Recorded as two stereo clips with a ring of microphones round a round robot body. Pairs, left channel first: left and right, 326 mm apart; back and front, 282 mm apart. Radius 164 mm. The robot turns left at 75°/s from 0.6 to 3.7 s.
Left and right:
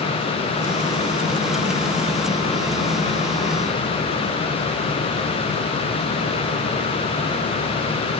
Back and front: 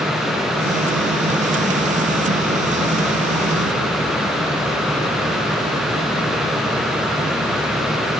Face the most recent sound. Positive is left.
No sound to turn to.